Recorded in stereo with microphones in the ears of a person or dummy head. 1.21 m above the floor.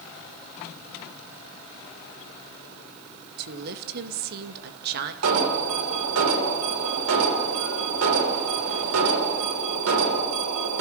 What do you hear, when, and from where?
3.4 s a woman speaking: 60° right (ahead or behind), 1.9 m
5.2 s an alarm: 90° right, 4 m